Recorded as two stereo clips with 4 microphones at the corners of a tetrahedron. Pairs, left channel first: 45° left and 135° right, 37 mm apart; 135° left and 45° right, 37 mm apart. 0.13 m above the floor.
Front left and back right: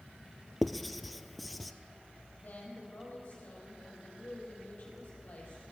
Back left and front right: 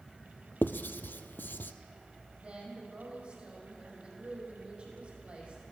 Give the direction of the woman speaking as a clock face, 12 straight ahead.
12 o'clock.